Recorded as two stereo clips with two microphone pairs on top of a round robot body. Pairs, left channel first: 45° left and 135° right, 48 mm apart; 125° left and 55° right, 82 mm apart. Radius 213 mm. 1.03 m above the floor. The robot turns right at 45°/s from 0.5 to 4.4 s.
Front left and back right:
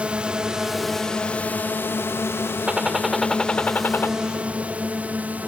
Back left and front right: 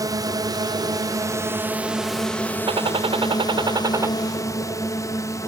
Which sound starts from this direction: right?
A drone, at 0.0 s.